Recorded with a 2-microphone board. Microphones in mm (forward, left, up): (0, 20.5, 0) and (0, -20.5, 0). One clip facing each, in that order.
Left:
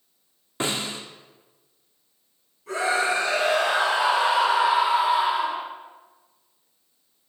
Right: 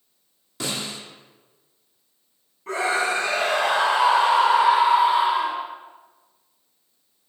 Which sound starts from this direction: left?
A snare drum, at 0.6 s.